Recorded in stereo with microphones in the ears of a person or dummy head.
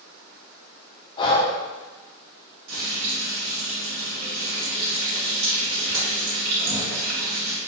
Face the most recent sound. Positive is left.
turn(degrees=-75)  # may be behind; listen again after turning